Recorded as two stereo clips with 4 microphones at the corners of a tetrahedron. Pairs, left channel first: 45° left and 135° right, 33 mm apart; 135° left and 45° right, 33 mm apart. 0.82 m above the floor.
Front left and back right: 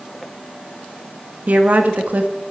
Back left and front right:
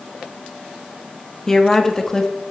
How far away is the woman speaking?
About 1.3 m.